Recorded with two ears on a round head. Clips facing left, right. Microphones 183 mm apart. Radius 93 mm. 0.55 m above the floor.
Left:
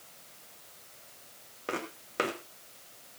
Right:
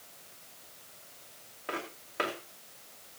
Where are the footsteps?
45° left (ahead or behind), 2.5 m.